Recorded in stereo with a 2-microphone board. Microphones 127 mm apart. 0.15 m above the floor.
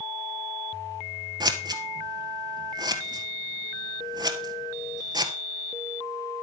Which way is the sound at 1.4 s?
35° right (ahead or behind).